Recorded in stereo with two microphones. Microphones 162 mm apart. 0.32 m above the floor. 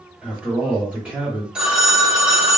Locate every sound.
0.2 s a man speaking: 10° right (ahead or behind), 1.2 m
1.6 s a phone ringing: 5° right (ahead or behind), 0.7 m